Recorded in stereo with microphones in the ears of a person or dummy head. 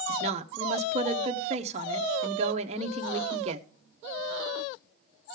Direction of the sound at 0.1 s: 45° right (ahead or behind).